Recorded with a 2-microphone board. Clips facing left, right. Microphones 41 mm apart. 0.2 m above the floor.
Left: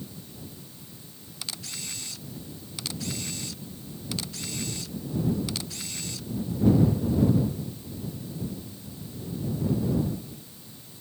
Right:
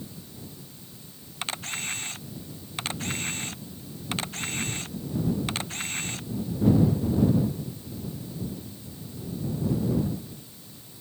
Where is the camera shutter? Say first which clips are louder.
Right 6 dB; 40° right (ahead or behind).